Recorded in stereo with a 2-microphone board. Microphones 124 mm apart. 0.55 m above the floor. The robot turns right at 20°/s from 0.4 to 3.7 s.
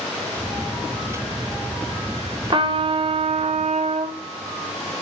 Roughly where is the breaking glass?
No breaking glass in this recording.